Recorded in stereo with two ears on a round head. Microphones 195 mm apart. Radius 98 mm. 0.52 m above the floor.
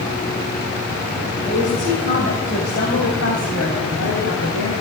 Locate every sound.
1.5 s a woman speaking: 35° left (ahead or behind), 2.5 m; by 4.7 s 75° left (ahead or behind), 3.5 m